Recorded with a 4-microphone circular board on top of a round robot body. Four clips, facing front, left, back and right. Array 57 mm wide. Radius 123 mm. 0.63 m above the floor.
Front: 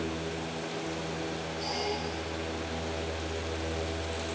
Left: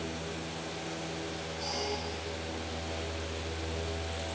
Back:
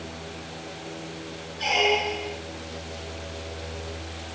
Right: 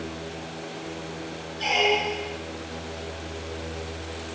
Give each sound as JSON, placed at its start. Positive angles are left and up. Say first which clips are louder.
{"t": 1.6, "sound": "a squeak", "louder": "right 15 dB, back 13 dB", "azimuth_deg": -125}